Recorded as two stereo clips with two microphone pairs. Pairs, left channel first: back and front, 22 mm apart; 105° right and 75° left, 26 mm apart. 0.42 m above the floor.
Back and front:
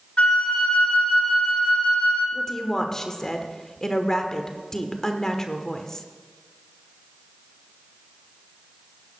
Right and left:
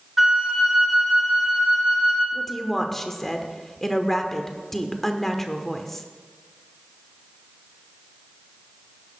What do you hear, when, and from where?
0.2 s a flute: 160° left, 3.5 m
2.3 s a woman speaking: 175° right, 1.1 m